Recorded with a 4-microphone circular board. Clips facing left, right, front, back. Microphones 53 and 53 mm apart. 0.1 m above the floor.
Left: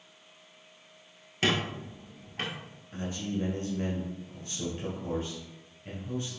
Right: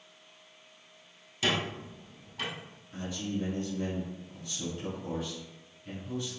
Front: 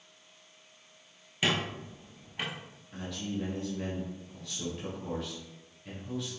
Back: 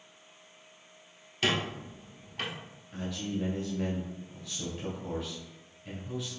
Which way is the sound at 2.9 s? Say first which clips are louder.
Left 1 dB, back 2 dB; 90° left.